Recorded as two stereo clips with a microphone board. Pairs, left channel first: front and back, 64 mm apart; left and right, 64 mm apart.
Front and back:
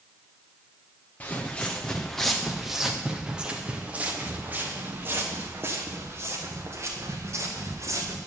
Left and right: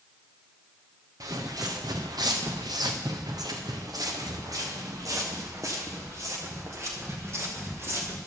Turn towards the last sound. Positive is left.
turn(degrees=-140)